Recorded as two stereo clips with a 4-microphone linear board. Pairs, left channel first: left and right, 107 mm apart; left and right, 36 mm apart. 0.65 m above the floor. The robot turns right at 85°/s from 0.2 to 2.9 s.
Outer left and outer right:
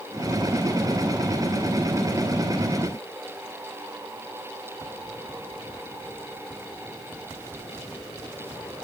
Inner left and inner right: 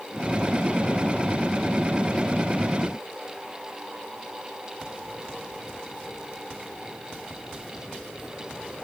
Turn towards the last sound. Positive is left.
No sound to turn to.